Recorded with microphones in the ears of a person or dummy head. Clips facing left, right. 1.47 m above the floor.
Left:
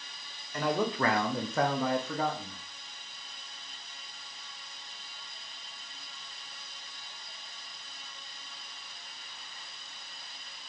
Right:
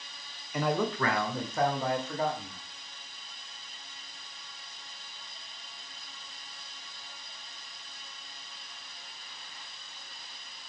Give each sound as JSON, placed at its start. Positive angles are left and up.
{"t": 0.5, "sound": "a man speaking", "side_deg": -10, "distance_m": 0.6}